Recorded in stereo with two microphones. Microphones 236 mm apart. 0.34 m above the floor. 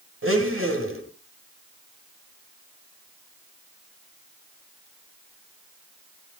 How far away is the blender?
About 2.5 m.